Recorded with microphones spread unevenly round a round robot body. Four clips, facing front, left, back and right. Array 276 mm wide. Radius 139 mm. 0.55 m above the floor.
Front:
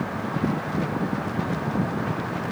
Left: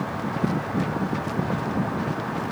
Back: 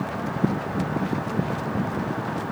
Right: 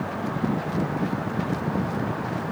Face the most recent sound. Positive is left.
No sound to turn to.